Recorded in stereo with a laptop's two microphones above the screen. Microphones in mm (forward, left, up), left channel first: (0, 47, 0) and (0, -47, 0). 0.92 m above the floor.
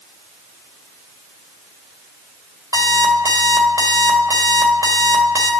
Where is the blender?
I don't hear a blender.